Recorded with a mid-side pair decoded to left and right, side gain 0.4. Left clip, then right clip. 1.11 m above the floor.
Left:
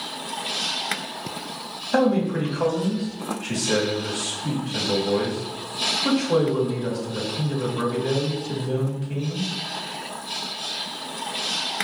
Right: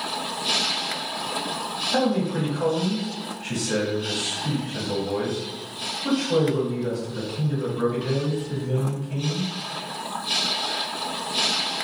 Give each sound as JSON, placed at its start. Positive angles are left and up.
{"t": 1.9, "sound": "a man speaking", "azimuth_deg": 45, "distance_m": 1.8}